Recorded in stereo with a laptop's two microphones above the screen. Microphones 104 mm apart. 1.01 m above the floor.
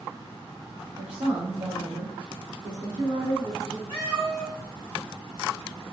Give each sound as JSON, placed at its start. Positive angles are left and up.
{"t": 1.0, "sound": "a woman speaking", "side_deg": -50, "distance_m": 0.6}
{"t": 3.9, "sound": "a cat meowing", "side_deg": 50, "distance_m": 0.9}